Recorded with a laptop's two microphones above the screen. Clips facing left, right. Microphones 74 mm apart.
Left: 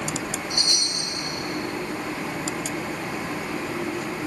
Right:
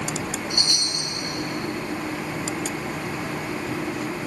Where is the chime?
20° left (ahead or behind), 1.8 m.